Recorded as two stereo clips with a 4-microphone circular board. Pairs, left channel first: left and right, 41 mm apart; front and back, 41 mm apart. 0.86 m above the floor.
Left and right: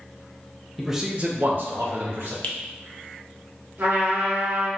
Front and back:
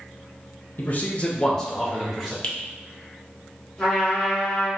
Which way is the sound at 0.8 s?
Straight ahead.